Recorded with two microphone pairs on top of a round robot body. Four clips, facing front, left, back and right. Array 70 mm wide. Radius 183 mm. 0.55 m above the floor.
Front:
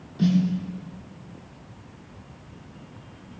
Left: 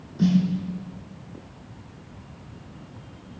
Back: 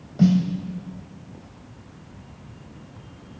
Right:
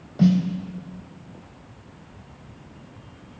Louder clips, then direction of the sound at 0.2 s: Right 2 dB, back 3 dB; 135° right.